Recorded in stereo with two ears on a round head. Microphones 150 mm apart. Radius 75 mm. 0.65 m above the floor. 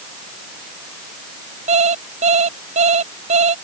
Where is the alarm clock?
40° right (ahead or behind).